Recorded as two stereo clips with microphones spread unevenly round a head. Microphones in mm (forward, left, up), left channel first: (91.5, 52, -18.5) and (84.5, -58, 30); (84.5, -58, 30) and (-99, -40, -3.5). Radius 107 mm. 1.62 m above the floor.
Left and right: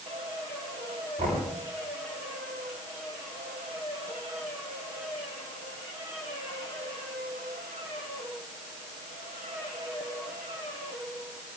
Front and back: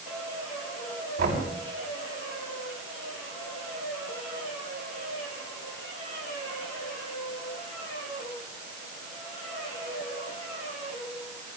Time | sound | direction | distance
1.2 | knocking | 145° right | 8 m